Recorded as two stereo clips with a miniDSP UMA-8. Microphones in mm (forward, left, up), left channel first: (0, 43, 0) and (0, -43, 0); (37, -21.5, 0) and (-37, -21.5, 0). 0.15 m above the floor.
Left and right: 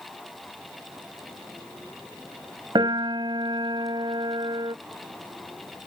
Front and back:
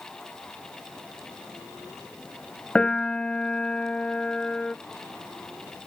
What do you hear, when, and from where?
2.8 s a piano: 75° right